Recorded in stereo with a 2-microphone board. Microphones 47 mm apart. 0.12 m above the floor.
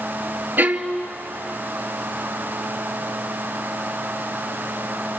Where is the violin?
45° right (ahead or behind), 0.8 m.